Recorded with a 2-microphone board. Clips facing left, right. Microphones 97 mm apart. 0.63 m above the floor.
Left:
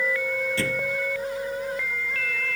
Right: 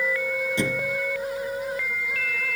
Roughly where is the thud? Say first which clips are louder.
Right 1 dB; centre.